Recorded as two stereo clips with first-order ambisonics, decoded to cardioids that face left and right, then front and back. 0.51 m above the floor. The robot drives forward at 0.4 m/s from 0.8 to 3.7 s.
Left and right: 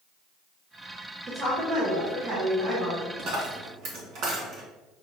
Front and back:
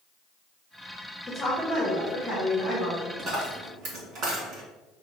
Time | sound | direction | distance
1.3 | a woman speaking | 55° right | 1.4 m
3.2 | a dropped coin | 120° right | 1.3 m